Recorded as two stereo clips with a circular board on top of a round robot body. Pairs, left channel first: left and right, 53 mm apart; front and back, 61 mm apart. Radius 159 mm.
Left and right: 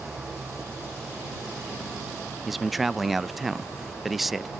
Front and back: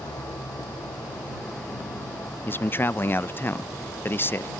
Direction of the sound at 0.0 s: 5° right.